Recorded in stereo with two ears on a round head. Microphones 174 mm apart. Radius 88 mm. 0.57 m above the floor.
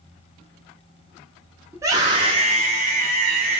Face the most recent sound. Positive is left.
turn(degrees=-45)  # may be behind; listen again after turning